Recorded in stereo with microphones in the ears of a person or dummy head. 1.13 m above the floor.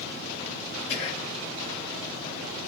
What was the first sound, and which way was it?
Whispering, 40° left (ahead or behind).